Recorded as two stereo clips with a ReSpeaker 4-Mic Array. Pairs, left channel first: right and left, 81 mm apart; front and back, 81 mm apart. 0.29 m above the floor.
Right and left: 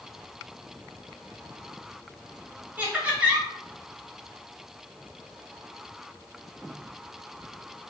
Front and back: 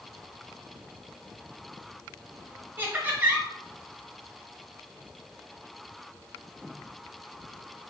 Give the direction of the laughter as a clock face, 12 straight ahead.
7 o'clock.